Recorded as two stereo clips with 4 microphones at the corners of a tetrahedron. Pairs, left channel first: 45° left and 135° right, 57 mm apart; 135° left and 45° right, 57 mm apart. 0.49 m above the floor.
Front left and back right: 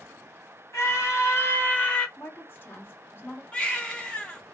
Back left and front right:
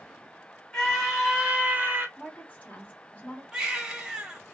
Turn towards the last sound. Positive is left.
turn(degrees=10)